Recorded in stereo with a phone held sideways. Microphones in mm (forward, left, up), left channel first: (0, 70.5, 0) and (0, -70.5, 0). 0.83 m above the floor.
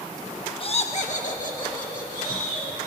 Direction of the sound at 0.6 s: 40° left (ahead or behind).